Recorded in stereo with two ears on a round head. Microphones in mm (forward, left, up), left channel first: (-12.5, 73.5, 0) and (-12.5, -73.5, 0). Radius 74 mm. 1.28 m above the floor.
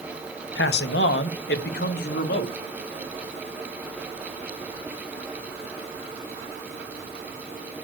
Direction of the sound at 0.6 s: 70° left (ahead or behind).